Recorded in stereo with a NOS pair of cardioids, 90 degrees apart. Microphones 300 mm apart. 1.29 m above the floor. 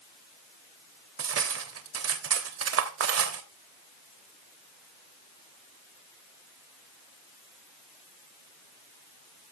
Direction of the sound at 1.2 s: 55° right.